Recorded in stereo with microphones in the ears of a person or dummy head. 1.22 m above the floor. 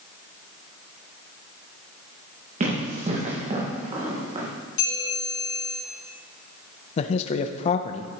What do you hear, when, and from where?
2.6 s running footsteps: 45° right (ahead or behind), 5 m; by 4.5 s 40° right (ahead or behind), 4 m
4.8 s a bell: 60° left (ahead or behind), 4 m
7.0 s a man speaking: 40° left (ahead or behind), 0.5 m